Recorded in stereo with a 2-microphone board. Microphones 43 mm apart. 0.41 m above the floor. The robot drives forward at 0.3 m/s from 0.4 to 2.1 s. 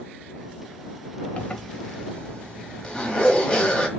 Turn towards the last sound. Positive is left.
turn(degrees=20)  # may be behind; listen again after turning